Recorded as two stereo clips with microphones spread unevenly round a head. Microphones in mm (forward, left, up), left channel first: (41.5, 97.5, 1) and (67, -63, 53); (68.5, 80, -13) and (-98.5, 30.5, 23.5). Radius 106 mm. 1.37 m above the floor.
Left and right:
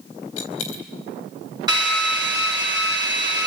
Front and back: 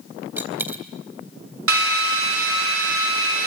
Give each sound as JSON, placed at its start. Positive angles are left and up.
{"t": 0.4, "sound": "a dropped coin", "azimuth_deg": 120, "distance_m": 4.0}
{"t": 1.7, "sound": "a drill", "azimuth_deg": -155, "distance_m": 4.5}